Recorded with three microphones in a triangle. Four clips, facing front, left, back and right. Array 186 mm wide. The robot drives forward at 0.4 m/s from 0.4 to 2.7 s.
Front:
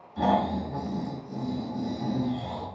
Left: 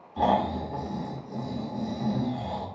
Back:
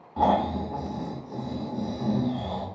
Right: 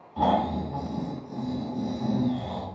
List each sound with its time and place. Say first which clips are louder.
0.2 s snoring: even, back 2 dB; 175° left, 1.4 m; by 2.7 s straight behind, 2 m